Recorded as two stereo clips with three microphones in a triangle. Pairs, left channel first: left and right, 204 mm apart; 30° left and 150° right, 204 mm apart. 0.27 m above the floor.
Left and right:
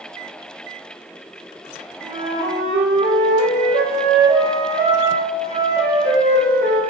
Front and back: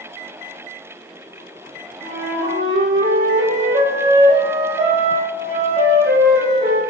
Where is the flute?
145° right, 3 m.